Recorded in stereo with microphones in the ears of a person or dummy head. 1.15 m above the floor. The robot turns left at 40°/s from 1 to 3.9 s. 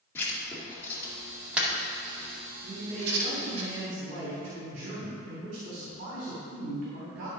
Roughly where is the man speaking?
Ahead right.